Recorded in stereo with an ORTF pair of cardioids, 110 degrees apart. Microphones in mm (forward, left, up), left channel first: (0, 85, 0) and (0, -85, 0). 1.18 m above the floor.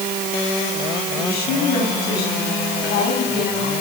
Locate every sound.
1.1 s a woman speaking: 70° left, 9 m